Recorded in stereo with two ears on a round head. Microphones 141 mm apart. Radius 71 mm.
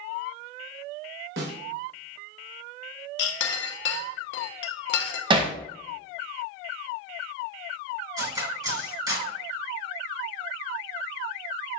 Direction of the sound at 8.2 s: 25° right (ahead or behind).